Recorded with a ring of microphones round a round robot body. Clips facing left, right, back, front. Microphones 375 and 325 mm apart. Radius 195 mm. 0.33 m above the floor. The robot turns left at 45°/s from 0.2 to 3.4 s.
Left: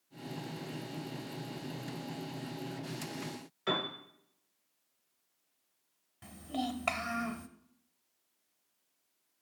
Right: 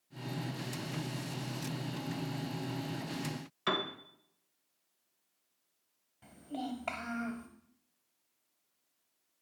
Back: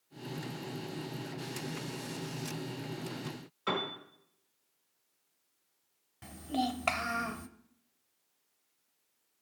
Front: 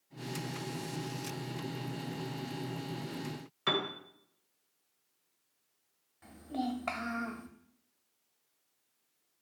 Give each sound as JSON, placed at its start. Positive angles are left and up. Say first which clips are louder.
{"t": 3.7, "sound": "a piano", "louder": "left 1 dB, front 1 dB", "azimuth_deg": -40, "distance_m": 1.4}
{"t": 6.2, "sound": "a child speaking", "louder": "left 3 dB, back 2 dB", "azimuth_deg": 145, "distance_m": 1.0}